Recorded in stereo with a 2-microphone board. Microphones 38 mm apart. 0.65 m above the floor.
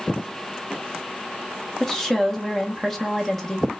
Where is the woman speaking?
10° left (ahead or behind), 1.2 m.